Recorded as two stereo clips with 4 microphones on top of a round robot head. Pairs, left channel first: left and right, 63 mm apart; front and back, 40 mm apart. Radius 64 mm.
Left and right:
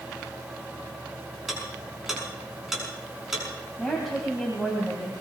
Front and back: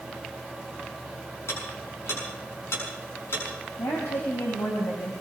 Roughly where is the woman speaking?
Ahead.